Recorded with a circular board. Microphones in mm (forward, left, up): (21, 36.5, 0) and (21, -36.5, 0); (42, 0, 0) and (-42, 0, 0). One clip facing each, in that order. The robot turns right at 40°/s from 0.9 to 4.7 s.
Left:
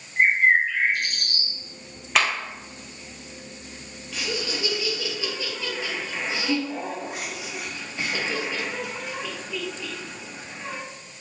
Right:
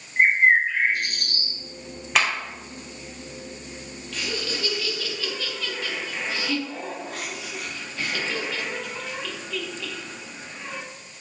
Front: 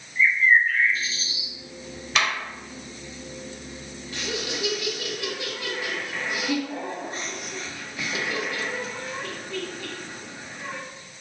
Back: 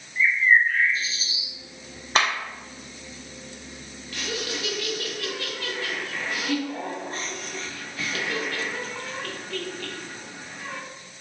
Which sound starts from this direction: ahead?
Laughter, at 4.1 s.